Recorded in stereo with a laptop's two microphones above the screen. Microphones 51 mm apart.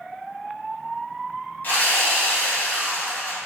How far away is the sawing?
About 1.9 m.